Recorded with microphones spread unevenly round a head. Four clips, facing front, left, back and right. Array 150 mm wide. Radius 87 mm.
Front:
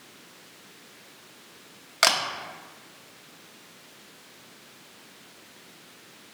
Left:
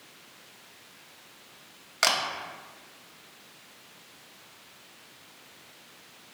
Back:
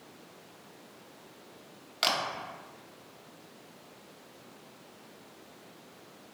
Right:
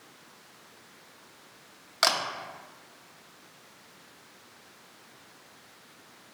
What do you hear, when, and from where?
2.0 s a camera shutter: 10° left, 0.6 m